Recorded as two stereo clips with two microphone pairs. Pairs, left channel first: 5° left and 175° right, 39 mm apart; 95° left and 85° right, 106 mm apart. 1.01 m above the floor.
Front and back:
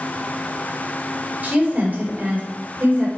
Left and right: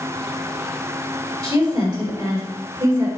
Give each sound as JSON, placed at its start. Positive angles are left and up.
{"t": 1.4, "sound": "a woman speaking", "azimuth_deg": -130, "distance_m": 3.0}